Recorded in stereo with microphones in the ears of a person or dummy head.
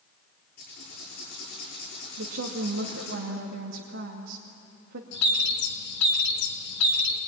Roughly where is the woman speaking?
Right.